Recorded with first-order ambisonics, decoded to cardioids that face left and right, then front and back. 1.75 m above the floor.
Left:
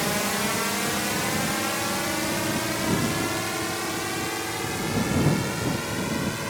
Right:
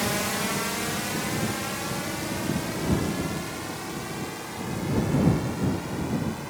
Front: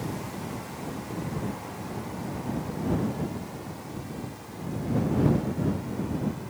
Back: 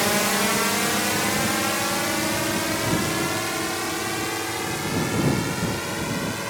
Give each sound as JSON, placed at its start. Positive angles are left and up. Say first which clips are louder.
{"t": 0.0, "sound": "a drone", "louder": "left 2 dB, back 15 dB", "azimuth_deg": 175}